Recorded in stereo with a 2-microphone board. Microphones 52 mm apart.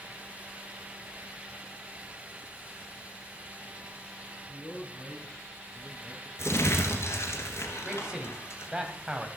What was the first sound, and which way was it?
A man speaking, 30° left (ahead or behind).